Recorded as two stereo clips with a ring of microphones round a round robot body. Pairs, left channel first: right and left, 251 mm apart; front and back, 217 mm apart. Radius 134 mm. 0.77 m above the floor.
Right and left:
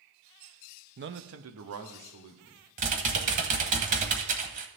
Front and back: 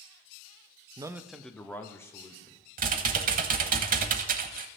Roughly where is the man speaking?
Behind left.